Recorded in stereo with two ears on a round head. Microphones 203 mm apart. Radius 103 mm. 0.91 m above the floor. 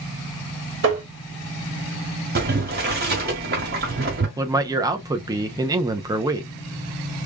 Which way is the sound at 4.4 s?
15° right (ahead or behind).